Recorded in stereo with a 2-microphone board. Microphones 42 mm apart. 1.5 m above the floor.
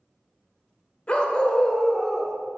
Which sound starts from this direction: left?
A dog barking, at 1.1 s.